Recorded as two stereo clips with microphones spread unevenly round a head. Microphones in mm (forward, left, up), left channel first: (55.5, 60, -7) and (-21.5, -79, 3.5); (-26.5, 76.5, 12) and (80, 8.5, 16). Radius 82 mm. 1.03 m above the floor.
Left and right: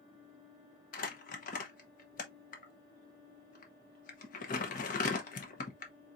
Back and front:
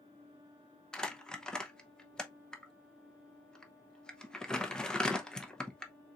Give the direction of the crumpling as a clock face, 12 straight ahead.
10 o'clock.